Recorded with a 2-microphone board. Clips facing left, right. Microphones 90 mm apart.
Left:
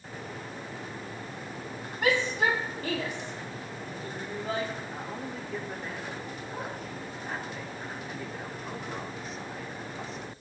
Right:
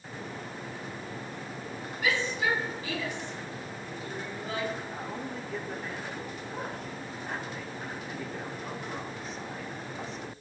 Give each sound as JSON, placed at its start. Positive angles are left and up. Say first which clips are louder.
{"t": 2.0, "sound": "a shout", "louder": "left 3 dB", "side_deg": 60, "distance_m": 5.0}
{"t": 4.9, "sound": "a man speaking", "louder": "even", "side_deg": 0, "distance_m": 2.5}